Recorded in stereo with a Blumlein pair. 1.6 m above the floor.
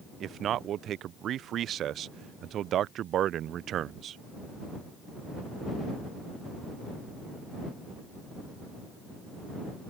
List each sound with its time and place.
0.2 s a man speaking: 30° right